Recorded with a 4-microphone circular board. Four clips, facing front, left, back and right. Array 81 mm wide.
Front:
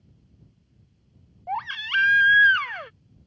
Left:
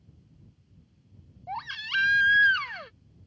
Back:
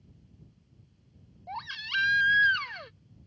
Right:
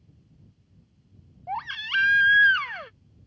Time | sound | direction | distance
1.5 | a baby crying | 20° right | ?